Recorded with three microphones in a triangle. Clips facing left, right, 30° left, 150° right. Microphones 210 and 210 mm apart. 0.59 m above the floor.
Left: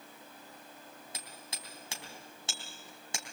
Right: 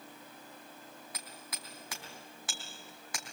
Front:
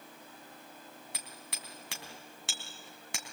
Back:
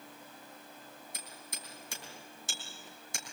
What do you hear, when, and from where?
1.1 s hammering: 30° left, 3.5 m